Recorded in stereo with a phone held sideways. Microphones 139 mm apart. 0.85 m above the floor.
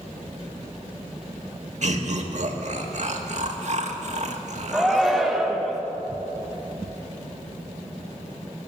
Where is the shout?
Centre (ahead or behind), 0.7 m.